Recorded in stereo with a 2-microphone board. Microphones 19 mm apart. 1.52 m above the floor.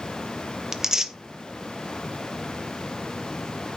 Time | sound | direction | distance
0.7 | tearing paper | 30° right (ahead or behind) | 0.7 m